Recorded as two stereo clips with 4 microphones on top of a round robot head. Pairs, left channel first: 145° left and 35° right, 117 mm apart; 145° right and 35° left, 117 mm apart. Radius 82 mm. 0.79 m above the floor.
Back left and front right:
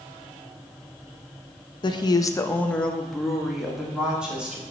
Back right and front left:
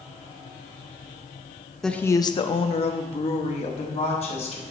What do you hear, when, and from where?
1.8 s a woman speaking: 130° left, 0.6 m; by 4.6 s 115° right, 2.5 m